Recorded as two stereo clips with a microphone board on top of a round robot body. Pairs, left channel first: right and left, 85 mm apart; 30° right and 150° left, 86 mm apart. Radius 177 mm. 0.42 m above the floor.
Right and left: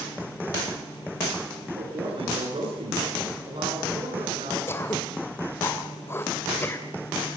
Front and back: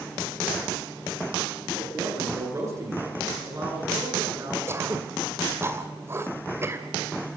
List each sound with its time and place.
1.8 s a man speaking: 95° left, 9.5 m
4.7 s throat clearing: 150° right, 2.5 m